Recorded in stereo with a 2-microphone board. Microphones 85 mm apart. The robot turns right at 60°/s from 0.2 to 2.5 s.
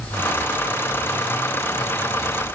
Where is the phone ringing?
No phone ringing in this recording.